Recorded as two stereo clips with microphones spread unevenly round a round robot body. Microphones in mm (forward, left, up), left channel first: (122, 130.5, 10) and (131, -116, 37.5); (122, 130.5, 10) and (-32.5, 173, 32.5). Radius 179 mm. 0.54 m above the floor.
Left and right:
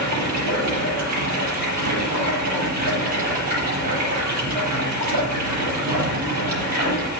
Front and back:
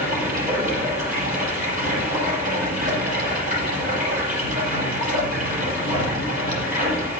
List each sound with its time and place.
0.0 s running water: 90° right, 7.5 m